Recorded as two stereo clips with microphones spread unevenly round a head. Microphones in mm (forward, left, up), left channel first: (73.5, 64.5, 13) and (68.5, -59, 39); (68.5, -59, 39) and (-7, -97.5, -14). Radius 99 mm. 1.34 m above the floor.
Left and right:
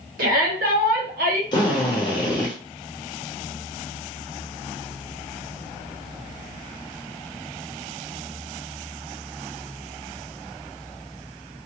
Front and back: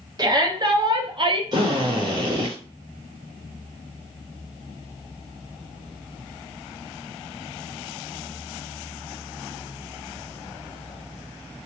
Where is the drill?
150° left, 0.8 m.